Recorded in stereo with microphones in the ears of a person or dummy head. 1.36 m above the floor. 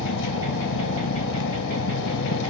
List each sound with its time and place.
0.0 s an engine running: 70° left (ahead or behind)